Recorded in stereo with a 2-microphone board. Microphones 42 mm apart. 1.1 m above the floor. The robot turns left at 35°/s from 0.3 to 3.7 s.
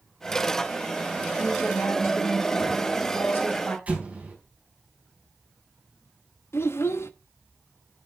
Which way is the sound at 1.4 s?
115° left.